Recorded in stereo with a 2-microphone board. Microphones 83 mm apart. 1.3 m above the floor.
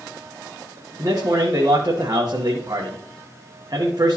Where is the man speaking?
45° right (ahead or behind), 1.0 m.